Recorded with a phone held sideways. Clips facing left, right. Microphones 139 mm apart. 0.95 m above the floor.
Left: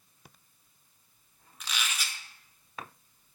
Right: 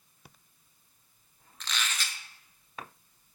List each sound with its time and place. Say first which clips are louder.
1.6 s a squeak: right 1 dB; 10° left (ahead or behind), 0.8 m